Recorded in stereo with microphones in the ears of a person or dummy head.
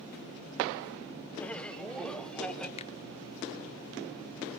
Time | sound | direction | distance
1.4 | laughter | 10° left (ahead or behind) | 0.8 m
2.8 | a finger snap | 35° left (ahead or behind) | 0.7 m